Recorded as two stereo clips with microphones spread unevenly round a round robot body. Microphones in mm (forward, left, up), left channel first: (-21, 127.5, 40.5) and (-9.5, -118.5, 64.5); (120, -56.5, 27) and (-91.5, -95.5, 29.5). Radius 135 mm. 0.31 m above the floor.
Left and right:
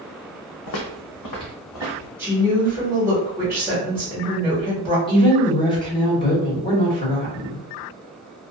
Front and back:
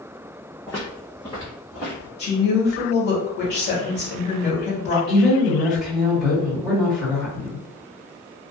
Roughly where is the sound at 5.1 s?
Left.